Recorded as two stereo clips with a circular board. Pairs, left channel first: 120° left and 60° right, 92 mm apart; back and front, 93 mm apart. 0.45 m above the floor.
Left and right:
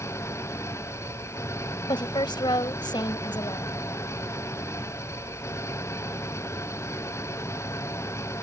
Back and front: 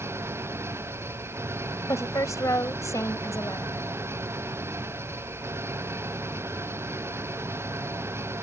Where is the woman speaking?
135° left.